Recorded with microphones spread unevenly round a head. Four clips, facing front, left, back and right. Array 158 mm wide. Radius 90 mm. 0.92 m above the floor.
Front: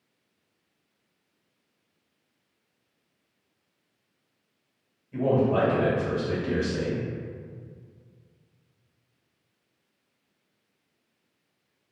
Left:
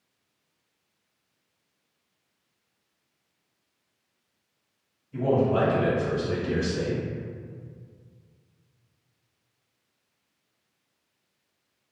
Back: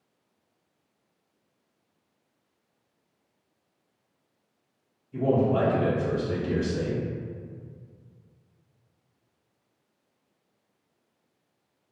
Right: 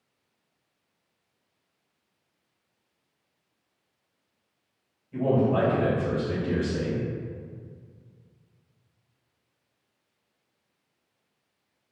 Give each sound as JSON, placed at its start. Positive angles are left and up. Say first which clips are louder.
{"t": 5.1, "sound": "a man speaking", "louder": "even, even", "azimuth_deg": -25, "distance_m": 1.8}